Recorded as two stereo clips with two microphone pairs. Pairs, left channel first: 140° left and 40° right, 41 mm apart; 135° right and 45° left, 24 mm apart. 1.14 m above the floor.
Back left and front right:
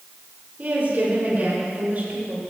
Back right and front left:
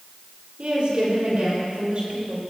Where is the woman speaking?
5° left, 5 m; by 2.4 s straight ahead, 6 m.